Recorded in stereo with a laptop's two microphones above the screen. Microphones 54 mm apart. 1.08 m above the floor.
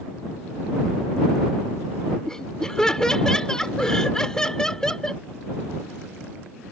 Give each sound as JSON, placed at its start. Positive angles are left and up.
{"t": 2.3, "sound": "laughter", "side_deg": 10}